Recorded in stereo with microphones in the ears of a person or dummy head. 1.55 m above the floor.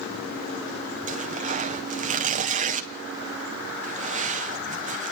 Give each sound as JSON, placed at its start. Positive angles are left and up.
{"t": 1.1, "sound": "tearing paper", "side_deg": -40, "distance_m": 1.3}